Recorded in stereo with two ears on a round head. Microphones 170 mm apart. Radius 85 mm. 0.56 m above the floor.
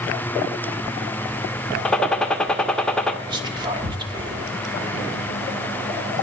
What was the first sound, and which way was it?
A gunshot, 5° left (ahead or behind).